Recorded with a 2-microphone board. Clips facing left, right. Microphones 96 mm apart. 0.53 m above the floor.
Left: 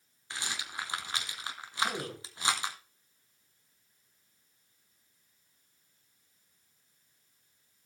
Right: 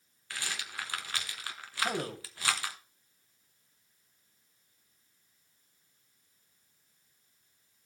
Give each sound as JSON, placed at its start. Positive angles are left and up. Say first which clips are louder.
{"t": 0.3, "sound": "a rattle", "louder": "left 1 dB", "side_deg": 20, "distance_m": 1.3}
{"t": 1.8, "sound": "a man speaking", "louder": "right 3 dB", "side_deg": -35, "distance_m": 2.5}